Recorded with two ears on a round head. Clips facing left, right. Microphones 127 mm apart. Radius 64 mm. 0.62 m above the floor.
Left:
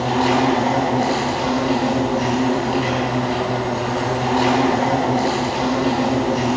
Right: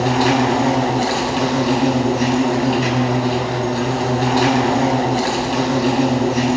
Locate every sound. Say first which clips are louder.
0.0 s an insect: right 1 dB; 60° right (ahead or behind), 5 m